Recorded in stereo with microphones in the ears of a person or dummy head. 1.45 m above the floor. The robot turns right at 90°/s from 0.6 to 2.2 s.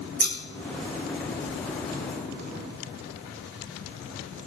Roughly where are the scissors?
Right.